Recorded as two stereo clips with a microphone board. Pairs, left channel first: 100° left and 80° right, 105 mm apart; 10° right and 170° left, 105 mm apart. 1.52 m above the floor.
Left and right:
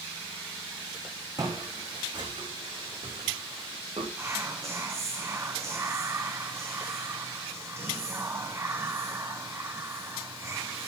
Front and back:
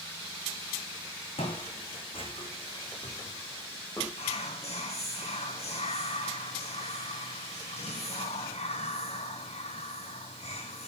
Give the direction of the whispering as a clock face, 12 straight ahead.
12 o'clock.